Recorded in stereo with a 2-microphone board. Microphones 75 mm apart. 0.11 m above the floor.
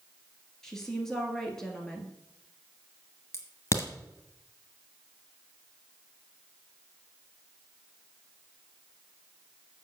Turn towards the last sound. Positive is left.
turn(degrees=40)  # may be behind; listen again after turning